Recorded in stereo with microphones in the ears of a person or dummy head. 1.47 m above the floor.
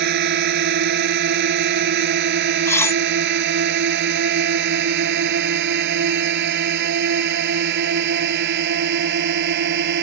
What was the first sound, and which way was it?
A drone, 55° right (ahead or behind).